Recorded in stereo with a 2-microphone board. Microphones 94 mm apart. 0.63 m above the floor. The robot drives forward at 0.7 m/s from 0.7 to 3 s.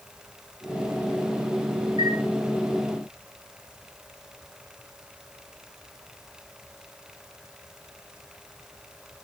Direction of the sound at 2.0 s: 60° right (ahead or behind).